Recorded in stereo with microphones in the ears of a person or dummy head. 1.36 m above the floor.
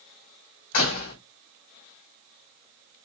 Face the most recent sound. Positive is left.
turn(degrees=50)  # may be behind; listen again after turning